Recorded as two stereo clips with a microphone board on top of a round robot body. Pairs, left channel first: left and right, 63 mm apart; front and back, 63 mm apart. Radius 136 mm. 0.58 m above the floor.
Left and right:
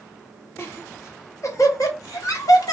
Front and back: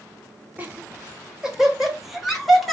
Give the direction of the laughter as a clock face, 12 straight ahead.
8 o'clock.